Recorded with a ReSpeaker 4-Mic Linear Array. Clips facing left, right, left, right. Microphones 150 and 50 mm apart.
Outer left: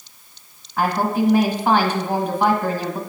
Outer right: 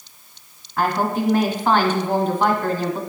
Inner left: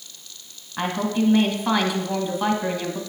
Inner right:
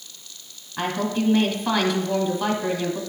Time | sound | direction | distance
0.8 | a woman speaking | 10° left (ahead or behind) | 1.3 m